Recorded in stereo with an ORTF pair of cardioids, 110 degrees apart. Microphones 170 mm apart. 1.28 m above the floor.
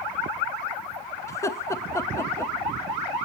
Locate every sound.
1.3 s laughter: 15° left, 1.4 m